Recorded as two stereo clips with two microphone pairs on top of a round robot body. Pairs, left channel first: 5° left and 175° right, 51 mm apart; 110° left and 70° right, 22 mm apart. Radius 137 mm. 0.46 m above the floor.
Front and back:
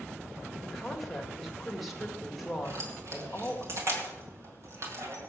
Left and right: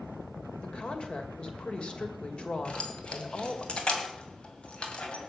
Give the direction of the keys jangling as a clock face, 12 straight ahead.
7 o'clock.